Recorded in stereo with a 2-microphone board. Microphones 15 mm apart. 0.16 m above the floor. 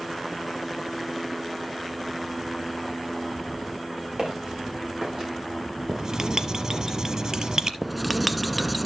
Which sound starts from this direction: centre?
Writing, at 7.8 s.